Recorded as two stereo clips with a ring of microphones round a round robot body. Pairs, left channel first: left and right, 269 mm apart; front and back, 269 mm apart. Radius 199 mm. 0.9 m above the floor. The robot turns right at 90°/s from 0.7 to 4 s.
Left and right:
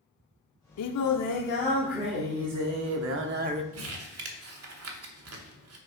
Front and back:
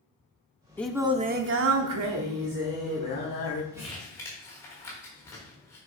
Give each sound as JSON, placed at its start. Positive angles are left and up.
{"t": 0.8, "sound": "singing", "azimuth_deg": 80, "distance_m": 0.6}
{"t": 3.7, "sound": "crumpling", "azimuth_deg": -105, "distance_m": 1.3}